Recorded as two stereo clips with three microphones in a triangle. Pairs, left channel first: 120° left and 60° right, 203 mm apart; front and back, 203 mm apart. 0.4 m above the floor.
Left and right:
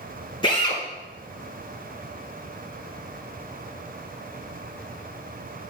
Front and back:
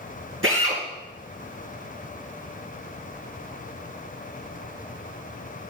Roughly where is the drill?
Behind.